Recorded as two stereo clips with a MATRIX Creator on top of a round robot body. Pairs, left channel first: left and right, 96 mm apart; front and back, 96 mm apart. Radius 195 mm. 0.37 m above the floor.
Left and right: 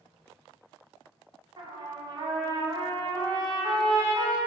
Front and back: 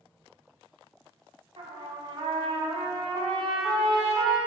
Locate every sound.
1.6 s a trumpet: 135° right, 1.3 m